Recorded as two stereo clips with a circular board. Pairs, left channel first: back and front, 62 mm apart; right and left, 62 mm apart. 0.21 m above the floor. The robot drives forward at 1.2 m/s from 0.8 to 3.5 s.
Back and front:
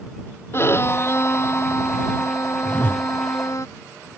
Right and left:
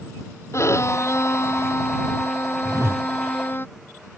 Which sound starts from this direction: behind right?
A violin, at 0.5 s.